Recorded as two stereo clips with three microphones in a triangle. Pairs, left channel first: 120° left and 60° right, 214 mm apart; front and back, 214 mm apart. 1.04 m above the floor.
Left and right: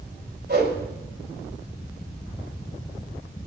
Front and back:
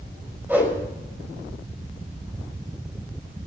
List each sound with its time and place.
0.5 s a whoosh: 100° right, 5 m